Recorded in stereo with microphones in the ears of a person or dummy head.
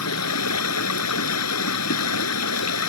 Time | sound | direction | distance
0.0 | running water | 85° left | ?